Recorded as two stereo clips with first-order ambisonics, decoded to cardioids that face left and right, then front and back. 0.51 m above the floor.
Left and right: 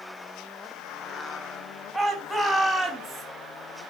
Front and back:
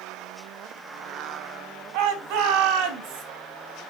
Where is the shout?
175° right, 4.5 m; by 3.2 s 170° right, 3.5 m.